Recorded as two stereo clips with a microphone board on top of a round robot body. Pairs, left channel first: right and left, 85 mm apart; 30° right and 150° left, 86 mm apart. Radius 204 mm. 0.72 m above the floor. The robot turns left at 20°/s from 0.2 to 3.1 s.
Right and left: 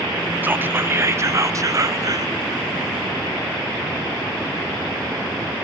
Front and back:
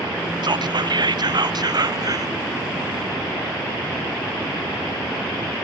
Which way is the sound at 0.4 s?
155° left.